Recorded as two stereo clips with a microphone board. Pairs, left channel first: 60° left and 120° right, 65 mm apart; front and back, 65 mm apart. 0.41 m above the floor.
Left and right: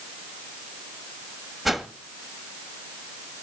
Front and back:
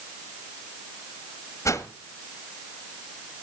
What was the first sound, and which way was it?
A whoosh, 35° right.